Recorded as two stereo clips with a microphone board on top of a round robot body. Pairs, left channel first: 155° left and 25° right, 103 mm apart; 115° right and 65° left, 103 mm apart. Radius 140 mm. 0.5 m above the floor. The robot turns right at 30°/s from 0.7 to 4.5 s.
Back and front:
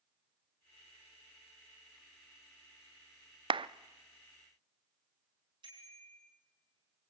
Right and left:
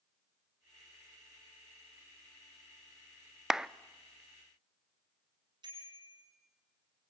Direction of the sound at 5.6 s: 20° left.